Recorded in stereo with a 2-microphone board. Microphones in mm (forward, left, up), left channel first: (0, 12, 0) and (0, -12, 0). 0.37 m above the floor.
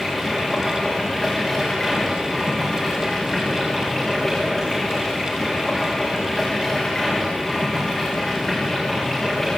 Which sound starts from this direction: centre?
Running water, at 0.0 s.